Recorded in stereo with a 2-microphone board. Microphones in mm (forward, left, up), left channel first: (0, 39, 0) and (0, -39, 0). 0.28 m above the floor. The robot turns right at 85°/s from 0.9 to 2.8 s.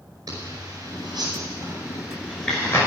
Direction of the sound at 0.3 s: 50° right (ahead or behind).